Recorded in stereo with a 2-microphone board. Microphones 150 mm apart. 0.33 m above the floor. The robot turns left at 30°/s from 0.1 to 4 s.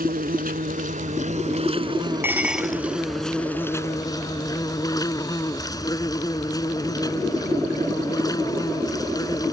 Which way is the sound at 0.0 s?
90° right.